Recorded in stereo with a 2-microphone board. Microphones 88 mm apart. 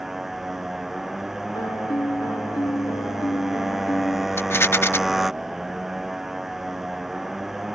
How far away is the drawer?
I don't hear a drawer.